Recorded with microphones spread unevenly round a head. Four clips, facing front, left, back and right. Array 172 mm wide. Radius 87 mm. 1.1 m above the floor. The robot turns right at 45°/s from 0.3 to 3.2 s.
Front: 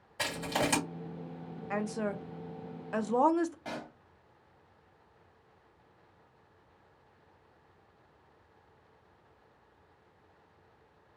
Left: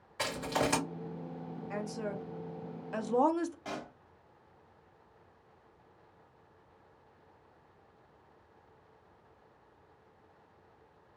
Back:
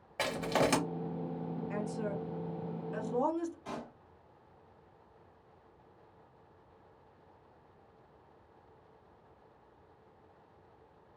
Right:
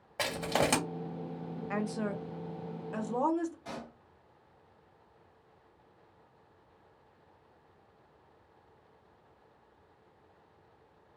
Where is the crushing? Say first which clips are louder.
Right 2 dB, back 2 dB; 130° right, 1.5 m; by 0.8 s 105° right, 1.5 m.